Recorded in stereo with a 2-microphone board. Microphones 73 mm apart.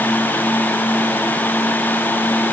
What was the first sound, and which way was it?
Only background noise.